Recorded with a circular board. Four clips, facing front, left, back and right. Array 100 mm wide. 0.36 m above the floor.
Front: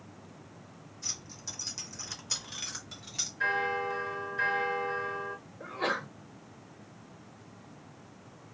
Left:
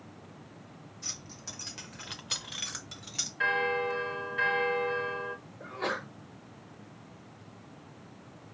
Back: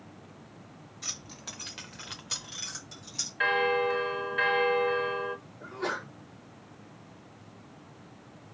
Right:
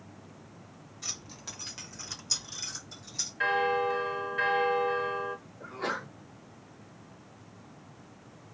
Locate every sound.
1.0 s keys jangling: 145° right, 1.0 m; by 3.3 s 65° left, 1.2 m
3.4 s a bell: 175° right, 0.6 m
5.6 s a sneeze: 20° left, 1.1 m